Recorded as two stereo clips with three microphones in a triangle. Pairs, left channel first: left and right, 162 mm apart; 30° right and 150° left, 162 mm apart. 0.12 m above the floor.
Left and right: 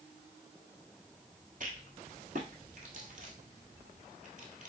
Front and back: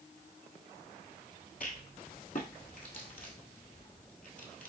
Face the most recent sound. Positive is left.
turn(degrees=-55)